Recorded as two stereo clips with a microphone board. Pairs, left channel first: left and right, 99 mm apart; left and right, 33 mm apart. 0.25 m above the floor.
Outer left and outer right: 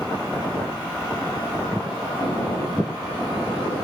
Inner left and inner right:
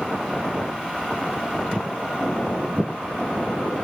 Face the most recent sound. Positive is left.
turn(degrees=5)  # may be behind; listen again after turning